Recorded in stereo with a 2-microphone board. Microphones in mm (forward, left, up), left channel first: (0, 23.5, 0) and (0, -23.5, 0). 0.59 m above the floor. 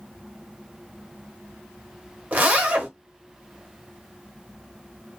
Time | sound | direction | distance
2.3 | a zipper | 35° right (ahead or behind) | 0.8 m